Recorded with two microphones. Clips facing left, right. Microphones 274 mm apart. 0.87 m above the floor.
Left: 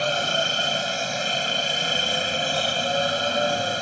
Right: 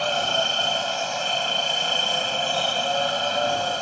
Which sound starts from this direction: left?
A helicopter, at 0.0 s.